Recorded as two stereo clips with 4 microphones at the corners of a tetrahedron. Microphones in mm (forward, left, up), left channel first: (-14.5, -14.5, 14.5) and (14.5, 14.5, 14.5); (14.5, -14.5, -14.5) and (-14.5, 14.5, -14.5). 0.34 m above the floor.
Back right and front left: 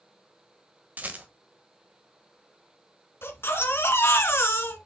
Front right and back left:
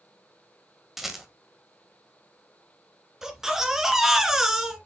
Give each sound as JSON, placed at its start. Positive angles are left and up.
{"t": 1.0, "sound": "a rattle", "azimuth_deg": 55, "distance_m": 1.4}
{"t": 3.2, "sound": "a baby crying", "azimuth_deg": -150, "distance_m": 1.3}